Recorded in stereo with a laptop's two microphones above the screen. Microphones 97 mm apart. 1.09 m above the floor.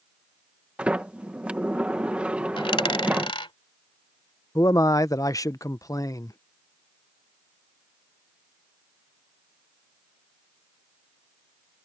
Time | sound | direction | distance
0.8 | a sliding door | 10° right (ahead or behind) | ?
2.6 | a dropped coin | 60° left (ahead or behind) | ?
4.5 | a man speaking | 35° left (ahead or behind) | ?